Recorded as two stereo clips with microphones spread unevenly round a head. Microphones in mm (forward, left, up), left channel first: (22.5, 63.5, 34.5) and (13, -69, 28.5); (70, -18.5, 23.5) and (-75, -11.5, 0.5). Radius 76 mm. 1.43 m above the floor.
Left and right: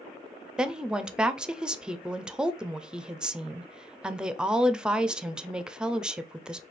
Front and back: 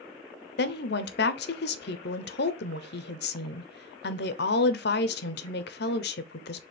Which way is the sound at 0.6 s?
10° right.